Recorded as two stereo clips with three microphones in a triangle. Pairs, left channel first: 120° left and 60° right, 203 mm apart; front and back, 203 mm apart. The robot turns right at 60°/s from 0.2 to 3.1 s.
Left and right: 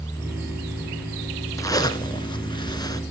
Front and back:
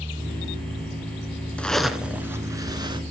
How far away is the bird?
I don't hear a bird.